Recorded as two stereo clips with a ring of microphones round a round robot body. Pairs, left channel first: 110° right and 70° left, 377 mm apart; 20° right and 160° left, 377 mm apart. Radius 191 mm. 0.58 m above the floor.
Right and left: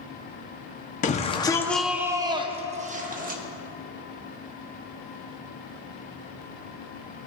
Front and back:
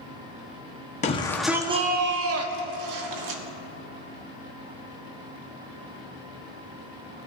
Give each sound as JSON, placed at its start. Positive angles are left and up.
{"t": 1.0, "sound": "a shout", "azimuth_deg": -70, "distance_m": 0.7}